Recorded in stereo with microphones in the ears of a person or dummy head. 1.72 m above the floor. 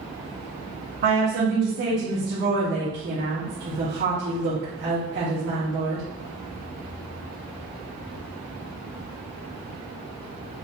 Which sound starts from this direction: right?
A woman speaking, at 1.0 s.